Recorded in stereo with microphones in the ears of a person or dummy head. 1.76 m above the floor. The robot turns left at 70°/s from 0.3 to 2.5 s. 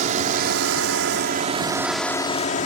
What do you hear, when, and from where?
0.0 s a drone: 50° right (ahead or behind); by 2.7 s 45° left (ahead or behind)